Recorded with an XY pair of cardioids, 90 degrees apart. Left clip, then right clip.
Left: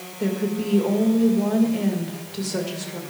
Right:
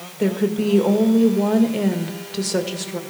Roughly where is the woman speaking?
Ahead right.